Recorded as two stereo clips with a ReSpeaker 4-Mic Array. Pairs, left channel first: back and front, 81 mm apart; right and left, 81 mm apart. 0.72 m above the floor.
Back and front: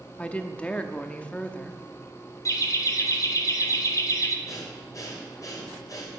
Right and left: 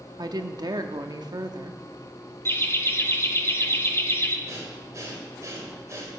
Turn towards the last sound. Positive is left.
turn(degrees=140)